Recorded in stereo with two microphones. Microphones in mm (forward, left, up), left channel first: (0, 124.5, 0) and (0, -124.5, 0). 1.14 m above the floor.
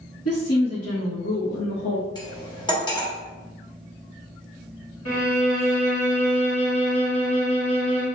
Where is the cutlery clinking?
15° left (ahead or behind), 1.0 m.